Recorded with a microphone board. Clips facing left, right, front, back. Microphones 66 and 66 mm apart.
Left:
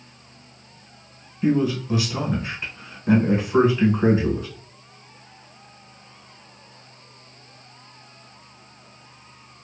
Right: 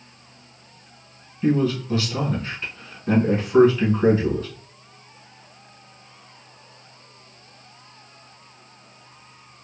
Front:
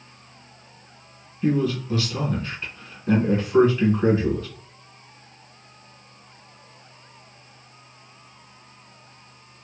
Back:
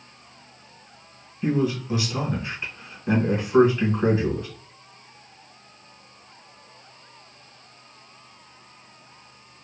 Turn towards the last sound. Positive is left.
turn(degrees=135)